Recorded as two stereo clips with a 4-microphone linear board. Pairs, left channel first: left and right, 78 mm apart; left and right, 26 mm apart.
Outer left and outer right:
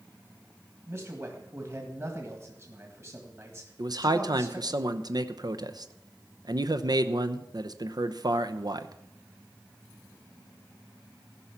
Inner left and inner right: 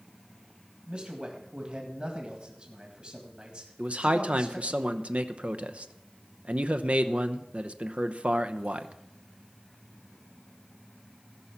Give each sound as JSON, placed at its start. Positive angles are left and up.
{"t": 0.9, "sound": "a man speaking", "side_deg": -35, "distance_m": 1.7}
{"t": 3.8, "sound": "a man speaking", "side_deg": -55, "distance_m": 0.7}